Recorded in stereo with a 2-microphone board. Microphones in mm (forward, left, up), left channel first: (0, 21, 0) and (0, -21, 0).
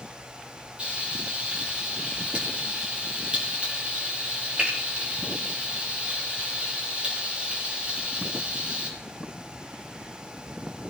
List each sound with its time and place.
0.8 s frying: 30° right (ahead or behind), 7 m